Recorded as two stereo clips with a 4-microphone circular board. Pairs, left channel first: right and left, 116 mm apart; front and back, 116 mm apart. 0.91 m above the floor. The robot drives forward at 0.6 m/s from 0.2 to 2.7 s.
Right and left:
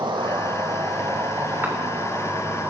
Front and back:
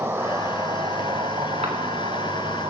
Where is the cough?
155° left, 3.5 m; by 1.7 s 160° left, 3.5 m.